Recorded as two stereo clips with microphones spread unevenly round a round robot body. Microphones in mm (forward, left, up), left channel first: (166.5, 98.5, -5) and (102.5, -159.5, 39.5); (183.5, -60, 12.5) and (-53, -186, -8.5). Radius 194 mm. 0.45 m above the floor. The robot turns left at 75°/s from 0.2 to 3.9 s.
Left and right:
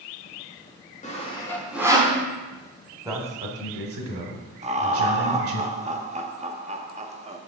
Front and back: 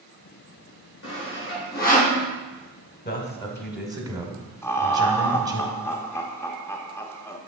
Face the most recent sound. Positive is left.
turn(degrees=-50)